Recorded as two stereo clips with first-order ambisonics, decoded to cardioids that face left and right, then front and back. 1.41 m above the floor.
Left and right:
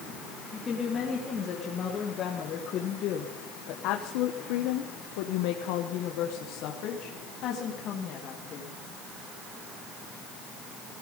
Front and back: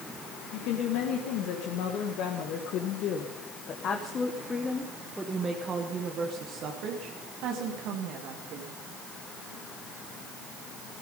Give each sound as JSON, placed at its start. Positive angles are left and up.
{"t": 0.5, "sound": "a woman speaking", "azimuth_deg": 20, "distance_m": 2.5}